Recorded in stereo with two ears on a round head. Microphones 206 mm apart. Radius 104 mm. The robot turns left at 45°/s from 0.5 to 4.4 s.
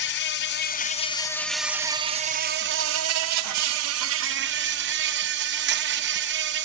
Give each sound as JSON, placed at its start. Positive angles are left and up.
{"t": 0.0, "sound": "an insect", "azimuth_deg": 50, "distance_m": 0.8}